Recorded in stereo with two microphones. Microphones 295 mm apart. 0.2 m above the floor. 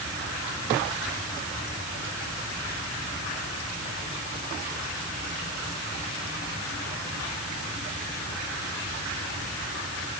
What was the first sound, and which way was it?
Only background noise.